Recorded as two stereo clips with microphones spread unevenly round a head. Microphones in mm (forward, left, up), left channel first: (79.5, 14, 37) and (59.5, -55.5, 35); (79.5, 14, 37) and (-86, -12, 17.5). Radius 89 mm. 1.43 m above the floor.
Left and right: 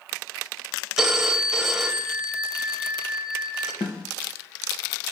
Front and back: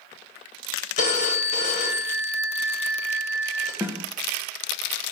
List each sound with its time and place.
1.0 s a phone ringing: 15° right, 1.1 m
3.8 s a snare drum: 110° left, 0.9 m